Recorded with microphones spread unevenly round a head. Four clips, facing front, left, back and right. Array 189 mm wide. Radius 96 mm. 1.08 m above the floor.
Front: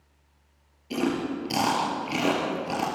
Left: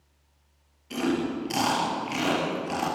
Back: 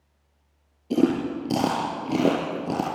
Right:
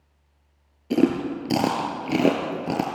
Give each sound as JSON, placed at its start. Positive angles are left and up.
{"t": 0.9, "sound": "chewing", "azimuth_deg": -125, "distance_m": 3.5}